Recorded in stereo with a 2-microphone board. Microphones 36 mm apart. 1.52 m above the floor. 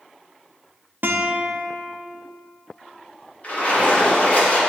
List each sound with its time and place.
1.0 s a guitar: 60° right (ahead or behind), 0.7 m
3.4 s a splash: 40° left (ahead or behind), 2.5 m